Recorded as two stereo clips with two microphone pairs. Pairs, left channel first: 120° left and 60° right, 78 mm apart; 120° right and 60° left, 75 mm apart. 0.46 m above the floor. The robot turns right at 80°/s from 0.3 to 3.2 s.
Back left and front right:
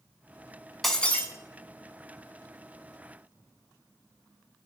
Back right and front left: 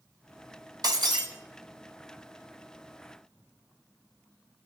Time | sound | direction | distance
0.8 | breaking glass | 35° left | 1.5 m